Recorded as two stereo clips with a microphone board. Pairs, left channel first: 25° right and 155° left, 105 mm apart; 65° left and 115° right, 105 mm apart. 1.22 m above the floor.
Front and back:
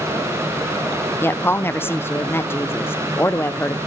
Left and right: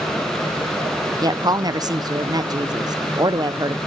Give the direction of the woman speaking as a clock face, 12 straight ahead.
3 o'clock.